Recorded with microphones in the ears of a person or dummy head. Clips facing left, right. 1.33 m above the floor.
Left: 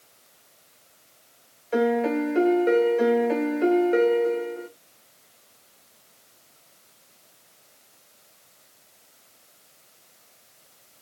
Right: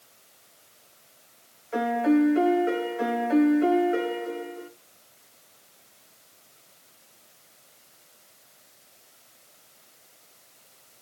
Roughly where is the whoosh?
I don't hear a whoosh.